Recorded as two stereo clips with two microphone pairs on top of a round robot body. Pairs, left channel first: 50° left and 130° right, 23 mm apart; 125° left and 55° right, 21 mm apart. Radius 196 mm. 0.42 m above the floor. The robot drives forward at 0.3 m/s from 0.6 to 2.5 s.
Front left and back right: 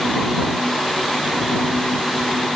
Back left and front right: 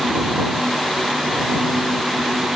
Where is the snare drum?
I don't hear a snare drum.